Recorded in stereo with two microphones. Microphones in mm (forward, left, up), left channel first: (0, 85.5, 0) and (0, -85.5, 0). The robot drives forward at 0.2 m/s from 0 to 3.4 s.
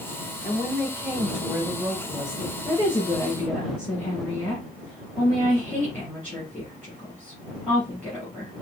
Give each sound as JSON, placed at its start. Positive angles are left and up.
{"t": 0.4, "sound": "a woman speaking", "side_deg": -5, "distance_m": 2.5}
{"t": 2.6, "sound": "a woman speaking", "side_deg": 10, "distance_m": 3.0}